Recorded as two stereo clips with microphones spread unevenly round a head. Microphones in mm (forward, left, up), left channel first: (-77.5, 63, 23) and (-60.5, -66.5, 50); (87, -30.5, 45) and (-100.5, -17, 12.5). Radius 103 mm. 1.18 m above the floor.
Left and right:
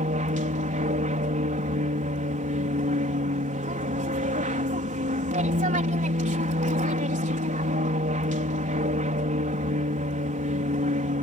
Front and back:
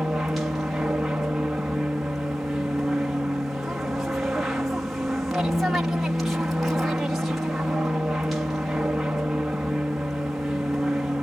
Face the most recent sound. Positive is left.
turn(degrees=-100)